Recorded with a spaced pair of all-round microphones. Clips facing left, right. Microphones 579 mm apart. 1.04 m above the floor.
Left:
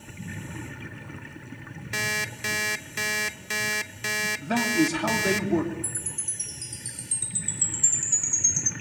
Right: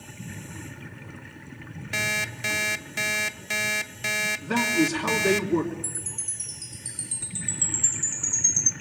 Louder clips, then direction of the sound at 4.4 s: Even; 10° left (ahead or behind).